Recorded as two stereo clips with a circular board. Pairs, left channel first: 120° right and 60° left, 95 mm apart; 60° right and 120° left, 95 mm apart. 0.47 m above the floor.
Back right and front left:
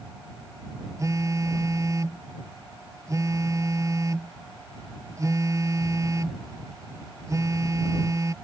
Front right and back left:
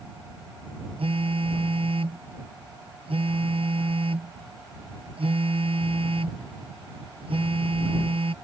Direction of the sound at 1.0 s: 115° left.